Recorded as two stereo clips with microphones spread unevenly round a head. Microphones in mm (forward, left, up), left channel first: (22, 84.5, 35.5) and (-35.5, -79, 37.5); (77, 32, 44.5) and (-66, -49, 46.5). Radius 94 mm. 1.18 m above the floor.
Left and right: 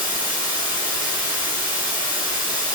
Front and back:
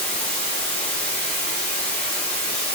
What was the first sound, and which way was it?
Running water, 170° left.